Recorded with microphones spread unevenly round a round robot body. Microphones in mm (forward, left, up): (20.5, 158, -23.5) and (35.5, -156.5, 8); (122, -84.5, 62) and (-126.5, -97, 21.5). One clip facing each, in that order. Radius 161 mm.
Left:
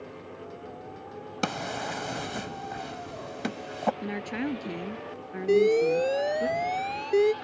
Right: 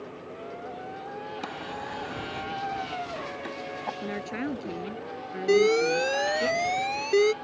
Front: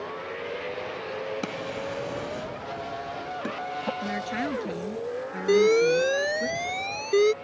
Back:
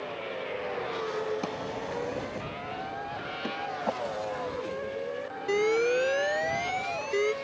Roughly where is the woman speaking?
Ahead.